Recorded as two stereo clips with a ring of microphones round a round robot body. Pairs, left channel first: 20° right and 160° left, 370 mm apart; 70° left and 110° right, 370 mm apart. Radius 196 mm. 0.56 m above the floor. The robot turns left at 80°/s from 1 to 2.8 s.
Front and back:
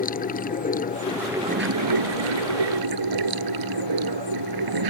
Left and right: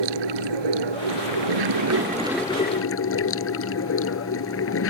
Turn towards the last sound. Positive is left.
turn(degrees=125)